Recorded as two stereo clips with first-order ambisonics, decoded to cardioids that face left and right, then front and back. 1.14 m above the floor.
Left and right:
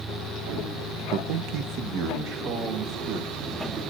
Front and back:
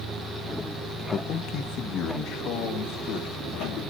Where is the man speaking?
60° right, 0.5 m; by 3.9 s 45° right, 3 m.